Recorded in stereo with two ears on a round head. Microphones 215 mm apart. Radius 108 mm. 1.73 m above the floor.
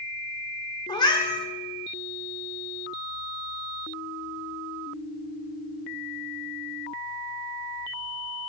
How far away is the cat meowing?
About 1.4 m.